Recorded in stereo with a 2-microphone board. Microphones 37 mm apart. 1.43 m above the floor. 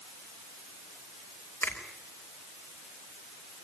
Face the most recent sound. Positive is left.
turn(degrees=75)  # may be behind; listen again after turning